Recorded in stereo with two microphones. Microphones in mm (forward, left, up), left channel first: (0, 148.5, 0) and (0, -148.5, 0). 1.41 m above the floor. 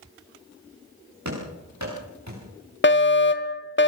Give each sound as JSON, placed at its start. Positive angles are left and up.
{"t": 1.2, "sound": "running footsteps", "side_deg": -65, "distance_m": 9.5}
{"t": 2.8, "sound": "a fire alarm", "side_deg": 40, "distance_m": 1.5}